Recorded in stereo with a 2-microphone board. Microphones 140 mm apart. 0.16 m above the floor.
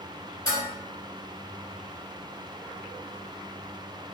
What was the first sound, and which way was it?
Dishes clattering, 30° left (ahead or behind).